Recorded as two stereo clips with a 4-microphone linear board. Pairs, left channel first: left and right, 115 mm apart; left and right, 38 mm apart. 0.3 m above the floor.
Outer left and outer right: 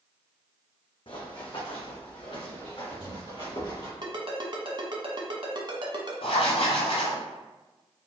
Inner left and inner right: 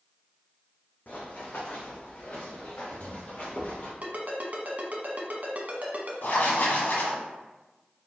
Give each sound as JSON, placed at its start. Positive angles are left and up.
{"t": 1.1, "sound": "running footsteps", "side_deg": 50, "distance_m": 1.0}
{"t": 4.0, "sound": "a ringtone", "side_deg": -45, "distance_m": 0.9}
{"t": 6.2, "sound": "writing", "side_deg": 60, "distance_m": 1.0}